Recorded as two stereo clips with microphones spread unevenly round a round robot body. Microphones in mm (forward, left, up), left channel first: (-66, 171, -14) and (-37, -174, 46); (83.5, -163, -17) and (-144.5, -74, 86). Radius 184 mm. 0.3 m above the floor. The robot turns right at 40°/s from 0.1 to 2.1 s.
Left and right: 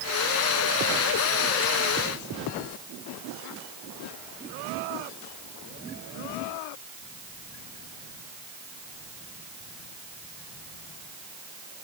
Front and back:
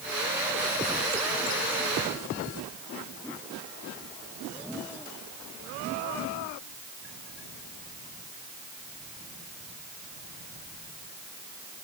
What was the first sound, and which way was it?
Only background noise.